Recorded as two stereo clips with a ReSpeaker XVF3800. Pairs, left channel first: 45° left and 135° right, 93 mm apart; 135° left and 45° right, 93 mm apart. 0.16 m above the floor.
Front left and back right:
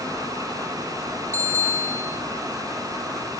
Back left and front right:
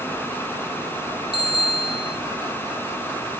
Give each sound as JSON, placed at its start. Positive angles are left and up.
{"t": 1.3, "sound": "a bicycle bell", "azimuth_deg": 165, "distance_m": 3.5}